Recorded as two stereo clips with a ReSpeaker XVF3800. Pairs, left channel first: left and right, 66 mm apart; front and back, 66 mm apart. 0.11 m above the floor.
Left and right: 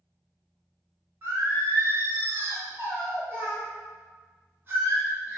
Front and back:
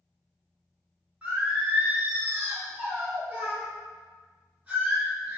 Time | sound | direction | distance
1.2 | singing | 120° right | 1.1 m